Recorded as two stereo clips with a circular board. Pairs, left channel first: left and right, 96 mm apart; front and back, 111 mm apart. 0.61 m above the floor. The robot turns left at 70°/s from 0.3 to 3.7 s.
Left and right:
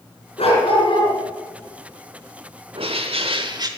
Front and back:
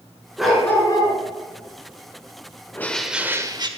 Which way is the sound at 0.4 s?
95° left.